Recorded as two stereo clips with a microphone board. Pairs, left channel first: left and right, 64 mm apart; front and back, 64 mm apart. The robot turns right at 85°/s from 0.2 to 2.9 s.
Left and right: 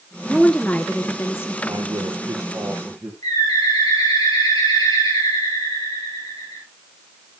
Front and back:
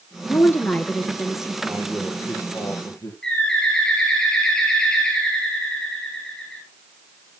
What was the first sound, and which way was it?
A woman speaking, 5° left.